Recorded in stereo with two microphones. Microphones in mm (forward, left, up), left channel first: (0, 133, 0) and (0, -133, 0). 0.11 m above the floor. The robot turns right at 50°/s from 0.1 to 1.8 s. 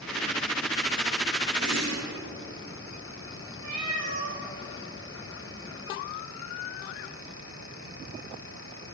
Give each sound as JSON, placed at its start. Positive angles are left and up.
{"t": 1.6, "sound": "a whoosh", "side_deg": -80, "distance_m": 8.5}
{"t": 3.6, "sound": "a cat meowing", "side_deg": -65, "distance_m": 8.0}